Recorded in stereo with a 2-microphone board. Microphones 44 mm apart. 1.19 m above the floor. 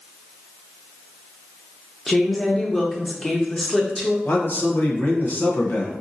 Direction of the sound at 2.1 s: 10° left (ahead or behind).